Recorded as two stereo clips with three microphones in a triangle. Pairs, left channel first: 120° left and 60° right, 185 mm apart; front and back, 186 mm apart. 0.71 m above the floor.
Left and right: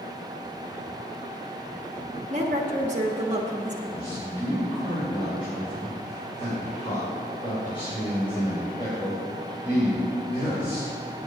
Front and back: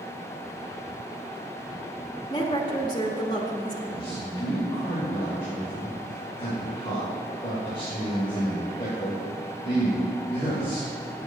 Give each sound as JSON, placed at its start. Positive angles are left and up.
{"t": 2.3, "sound": "a woman speaking", "azimuth_deg": -55, "distance_m": 1.0}
{"t": 3.9, "sound": "a man speaking", "azimuth_deg": 60, "distance_m": 3.0}